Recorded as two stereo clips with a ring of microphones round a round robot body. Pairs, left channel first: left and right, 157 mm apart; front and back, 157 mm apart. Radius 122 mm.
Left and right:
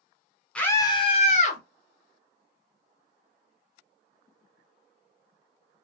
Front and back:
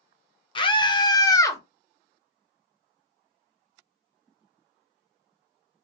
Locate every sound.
0.6 s a scream: 15° left, 0.8 m; by 1.6 s 70° left, 1.3 m